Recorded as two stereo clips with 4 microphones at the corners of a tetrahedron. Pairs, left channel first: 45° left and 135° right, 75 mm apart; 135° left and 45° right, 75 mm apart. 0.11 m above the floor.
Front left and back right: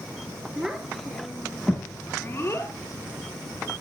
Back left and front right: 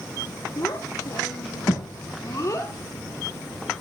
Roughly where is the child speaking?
Behind left.